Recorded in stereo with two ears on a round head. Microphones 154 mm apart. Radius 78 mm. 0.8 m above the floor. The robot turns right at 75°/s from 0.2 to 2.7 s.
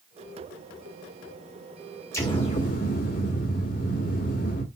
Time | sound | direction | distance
2.1 | an explosion | 15° left | 1.8 m